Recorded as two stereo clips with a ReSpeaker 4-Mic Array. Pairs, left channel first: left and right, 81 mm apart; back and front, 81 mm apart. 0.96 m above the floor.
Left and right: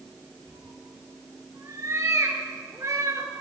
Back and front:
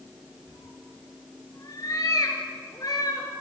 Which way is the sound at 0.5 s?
140° right.